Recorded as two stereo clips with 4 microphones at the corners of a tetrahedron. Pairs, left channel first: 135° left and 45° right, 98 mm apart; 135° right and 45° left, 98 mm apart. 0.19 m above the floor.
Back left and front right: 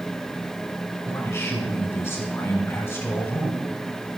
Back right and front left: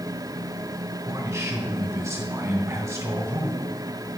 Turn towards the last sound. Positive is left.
turn(degrees=90)